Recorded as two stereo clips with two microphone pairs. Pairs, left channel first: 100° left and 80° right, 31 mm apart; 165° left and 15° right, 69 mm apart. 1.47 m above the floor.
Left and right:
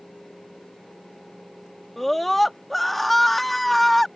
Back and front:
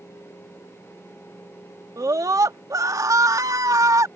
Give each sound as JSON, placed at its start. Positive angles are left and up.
{"t": 2.0, "sound": "a scream", "azimuth_deg": 15}